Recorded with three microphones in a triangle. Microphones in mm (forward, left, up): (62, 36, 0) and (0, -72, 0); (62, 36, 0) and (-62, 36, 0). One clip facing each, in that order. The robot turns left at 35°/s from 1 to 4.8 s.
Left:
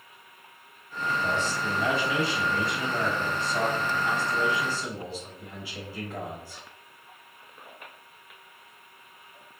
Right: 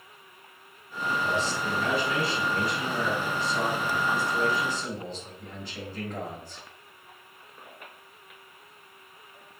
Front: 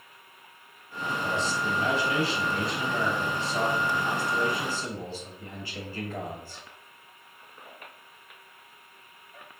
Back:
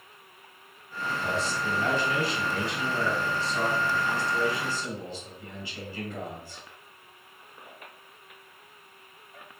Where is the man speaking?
105° left, 1.2 m; by 6.6 s 20° right, 1.2 m.